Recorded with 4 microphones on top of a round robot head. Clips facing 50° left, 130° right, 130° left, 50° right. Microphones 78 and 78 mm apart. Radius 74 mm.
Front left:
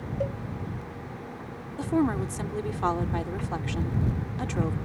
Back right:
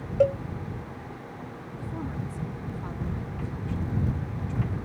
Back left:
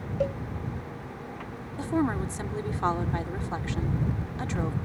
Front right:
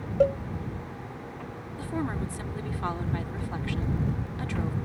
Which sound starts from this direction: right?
A cowbell, at 0.2 s.